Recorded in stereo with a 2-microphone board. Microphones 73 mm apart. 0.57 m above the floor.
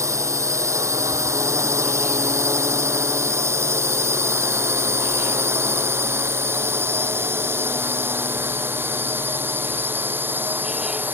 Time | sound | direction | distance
0.0 | a drone | 45° right (ahead or behind) | ?